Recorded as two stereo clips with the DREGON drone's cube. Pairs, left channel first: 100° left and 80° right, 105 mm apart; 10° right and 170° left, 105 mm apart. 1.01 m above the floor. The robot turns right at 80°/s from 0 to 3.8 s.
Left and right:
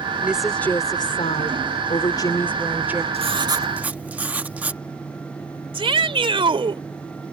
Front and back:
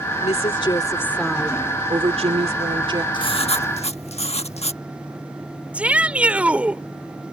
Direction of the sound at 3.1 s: 55° right.